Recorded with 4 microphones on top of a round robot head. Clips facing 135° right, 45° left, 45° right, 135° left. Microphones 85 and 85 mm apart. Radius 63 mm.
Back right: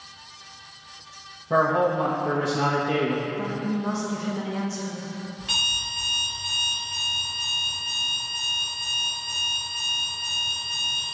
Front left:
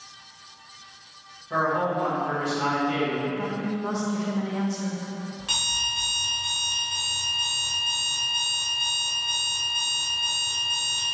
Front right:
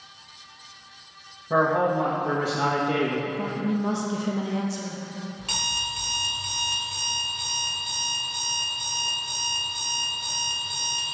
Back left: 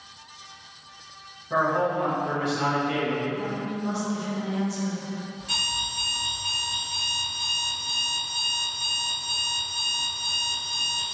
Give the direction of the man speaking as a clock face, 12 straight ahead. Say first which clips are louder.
Back right 4 dB, front right 2 dB; 3 o'clock.